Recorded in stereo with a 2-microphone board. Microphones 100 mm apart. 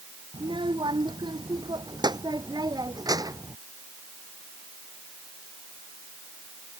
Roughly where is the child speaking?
Right.